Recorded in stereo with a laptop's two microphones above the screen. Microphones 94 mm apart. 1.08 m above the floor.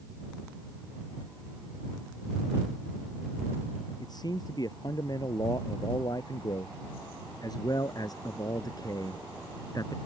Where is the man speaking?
45° left (ahead or behind); by 10.0 s 40° left (ahead or behind).